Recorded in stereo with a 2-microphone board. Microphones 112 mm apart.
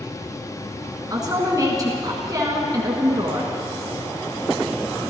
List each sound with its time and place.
1.1 s a woman speaking: 35° right (ahead or behind), 1.5 m